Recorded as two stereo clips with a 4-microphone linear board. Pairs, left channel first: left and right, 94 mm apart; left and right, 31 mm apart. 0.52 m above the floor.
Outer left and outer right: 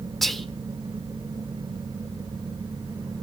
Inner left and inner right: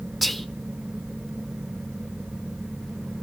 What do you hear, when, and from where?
0.2 s whispering: centre (ahead or behind), 1.1 m